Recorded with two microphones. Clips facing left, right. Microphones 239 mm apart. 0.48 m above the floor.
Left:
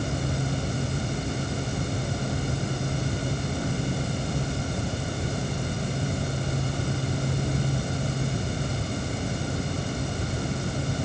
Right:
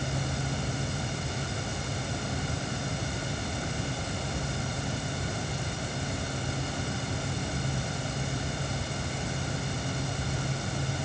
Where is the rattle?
I don't hear a rattle.